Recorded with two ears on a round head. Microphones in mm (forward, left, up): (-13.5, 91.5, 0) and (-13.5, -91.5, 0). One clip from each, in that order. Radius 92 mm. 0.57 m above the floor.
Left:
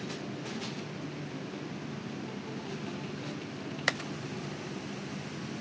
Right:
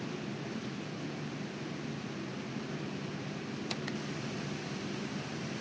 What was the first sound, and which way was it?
Only background noise.